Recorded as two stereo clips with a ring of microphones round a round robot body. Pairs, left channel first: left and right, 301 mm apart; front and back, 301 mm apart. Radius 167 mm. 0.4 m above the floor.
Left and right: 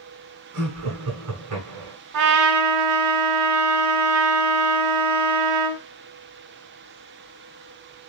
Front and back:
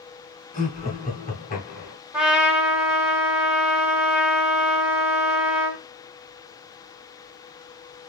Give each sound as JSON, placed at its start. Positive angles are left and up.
{"t": 0.5, "sound": "laughter", "azimuth_deg": -60, "distance_m": 2.0}
{"t": 2.1, "sound": "a trumpet", "azimuth_deg": -95, "distance_m": 0.9}